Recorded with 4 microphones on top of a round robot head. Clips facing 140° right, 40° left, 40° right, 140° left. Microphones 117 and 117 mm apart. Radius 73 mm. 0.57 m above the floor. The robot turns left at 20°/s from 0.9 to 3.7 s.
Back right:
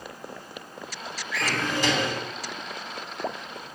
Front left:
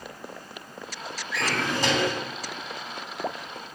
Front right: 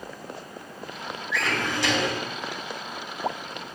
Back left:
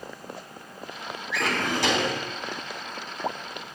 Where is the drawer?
105° left, 3 m; by 2.2 s 90° left, 3 m.